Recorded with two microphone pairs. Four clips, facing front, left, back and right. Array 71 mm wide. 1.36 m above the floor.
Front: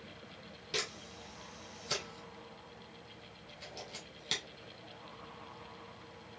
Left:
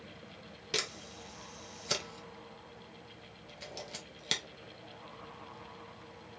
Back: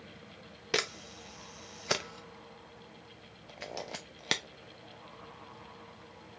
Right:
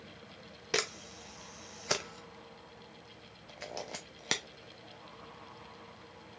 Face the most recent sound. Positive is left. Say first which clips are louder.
# right 4 dB, back 7 dB
turn(degrees=-140)